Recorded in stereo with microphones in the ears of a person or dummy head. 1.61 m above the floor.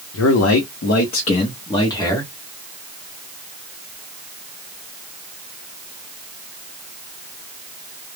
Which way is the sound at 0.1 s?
80° left.